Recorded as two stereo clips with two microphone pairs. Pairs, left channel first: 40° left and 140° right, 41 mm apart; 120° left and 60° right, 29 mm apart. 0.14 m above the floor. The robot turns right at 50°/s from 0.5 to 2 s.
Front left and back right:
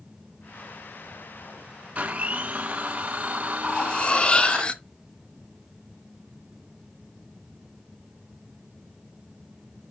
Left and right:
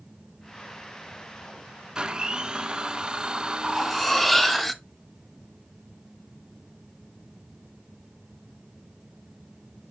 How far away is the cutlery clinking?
About 0.7 m.